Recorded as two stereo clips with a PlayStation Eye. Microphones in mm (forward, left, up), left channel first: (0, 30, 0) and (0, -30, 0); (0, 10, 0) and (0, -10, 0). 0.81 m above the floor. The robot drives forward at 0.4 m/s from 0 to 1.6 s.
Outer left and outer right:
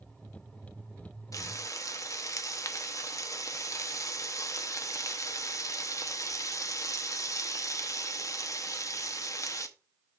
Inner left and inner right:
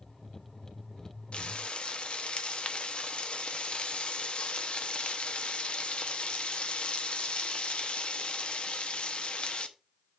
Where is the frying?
65° left (ahead or behind), 0.8 m; by 9.7 s 60° left (ahead or behind), 0.8 m.